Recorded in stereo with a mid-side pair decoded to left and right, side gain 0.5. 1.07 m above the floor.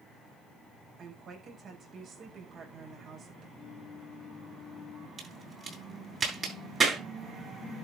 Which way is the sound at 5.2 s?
35° right.